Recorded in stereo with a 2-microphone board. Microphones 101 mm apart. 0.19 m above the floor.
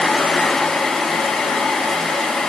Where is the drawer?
I don't hear a drawer.